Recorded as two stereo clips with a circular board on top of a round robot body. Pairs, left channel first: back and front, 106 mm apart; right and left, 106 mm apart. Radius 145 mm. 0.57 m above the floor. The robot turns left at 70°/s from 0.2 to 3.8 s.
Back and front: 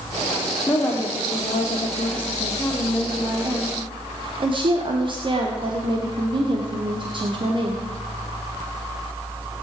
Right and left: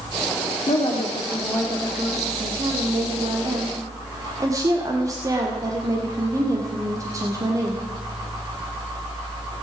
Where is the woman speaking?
105° right, 2.0 m; by 7.8 s 35° left, 2.0 m.